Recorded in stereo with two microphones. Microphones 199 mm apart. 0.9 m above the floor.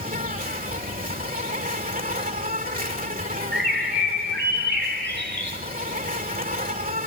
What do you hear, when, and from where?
0.0 s an insect: 45° right (ahead or behind), 2.5 m
3.5 s a bird: 65° right (ahead or behind), 5 m